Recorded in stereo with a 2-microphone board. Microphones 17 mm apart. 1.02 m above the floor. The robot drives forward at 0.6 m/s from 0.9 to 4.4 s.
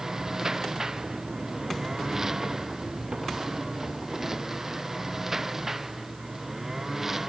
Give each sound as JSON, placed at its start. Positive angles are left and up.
{"t": 0.0, "sound": "a lawn mower", "side_deg": -30}